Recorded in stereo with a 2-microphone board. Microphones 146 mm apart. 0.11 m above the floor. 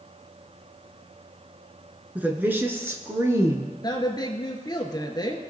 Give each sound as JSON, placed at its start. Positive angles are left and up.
{"t": 2.1, "sound": "a woman speaking", "side_deg": -10, "distance_m": 1.1}
{"t": 3.8, "sound": "a woman speaking", "side_deg": 30, "distance_m": 1.5}